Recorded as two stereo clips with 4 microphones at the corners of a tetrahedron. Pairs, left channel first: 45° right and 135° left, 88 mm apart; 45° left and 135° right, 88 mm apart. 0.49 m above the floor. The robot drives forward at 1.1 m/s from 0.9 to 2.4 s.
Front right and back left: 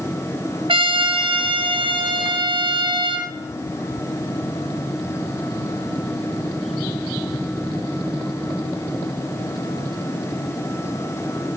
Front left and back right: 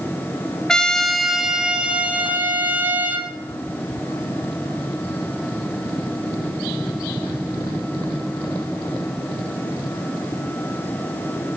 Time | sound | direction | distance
0.7 | a trumpet | 125° left | 1.7 m